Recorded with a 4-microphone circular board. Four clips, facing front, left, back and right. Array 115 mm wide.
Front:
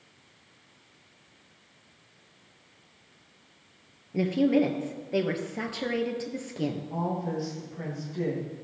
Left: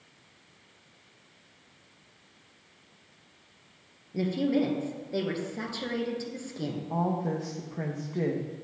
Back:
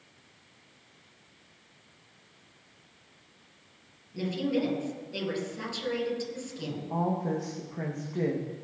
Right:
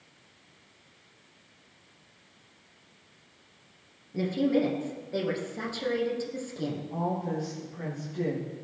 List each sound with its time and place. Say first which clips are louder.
4.1 s a woman speaking: right 1 dB, front 6 dB; 5° left, 2.5 m
6.9 s a woman speaking: left 4 dB, back 1 dB; 125° left, 3.5 m